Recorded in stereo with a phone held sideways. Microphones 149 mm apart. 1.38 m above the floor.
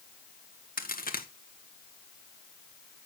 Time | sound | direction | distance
0.8 | a crack | 75° left (ahead or behind) | 1.7 m